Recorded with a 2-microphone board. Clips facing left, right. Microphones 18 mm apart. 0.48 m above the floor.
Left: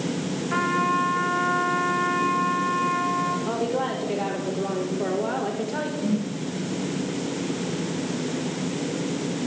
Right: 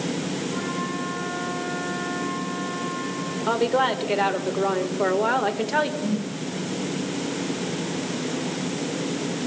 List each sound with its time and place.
0.5 s a trumpet: 80° left, 6 m
3.5 s a woman speaking: 50° right (ahead or behind), 1.7 m
6.0 s a whoosh: 15° right (ahead or behind), 6 m